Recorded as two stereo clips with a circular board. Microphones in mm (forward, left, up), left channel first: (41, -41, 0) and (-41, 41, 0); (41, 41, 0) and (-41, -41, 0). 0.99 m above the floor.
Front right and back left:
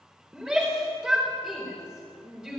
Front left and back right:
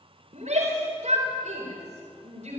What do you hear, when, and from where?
0.3 s a shout: 140° right, 3.5 m